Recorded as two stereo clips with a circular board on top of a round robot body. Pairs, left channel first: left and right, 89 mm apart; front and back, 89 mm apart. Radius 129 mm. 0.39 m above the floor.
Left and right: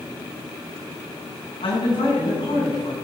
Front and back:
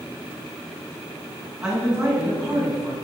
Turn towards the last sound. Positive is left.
turn(degrees=95)